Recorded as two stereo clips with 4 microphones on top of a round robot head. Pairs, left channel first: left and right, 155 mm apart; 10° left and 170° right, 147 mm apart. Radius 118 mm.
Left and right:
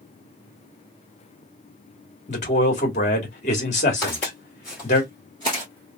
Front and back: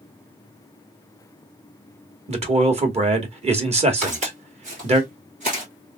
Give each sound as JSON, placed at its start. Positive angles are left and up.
{"t": 2.3, "sound": "a man speaking", "azimuth_deg": 145, "distance_m": 1.3}
{"t": 4.0, "sound": "footsteps", "azimuth_deg": 170, "distance_m": 2.0}